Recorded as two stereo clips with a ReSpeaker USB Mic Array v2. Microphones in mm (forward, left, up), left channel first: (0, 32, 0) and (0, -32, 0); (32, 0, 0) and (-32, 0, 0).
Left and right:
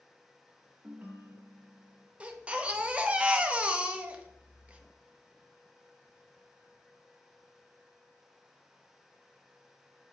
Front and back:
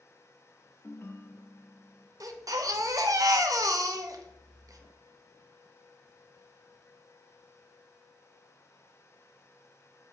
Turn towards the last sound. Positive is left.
turn(degrees=-160)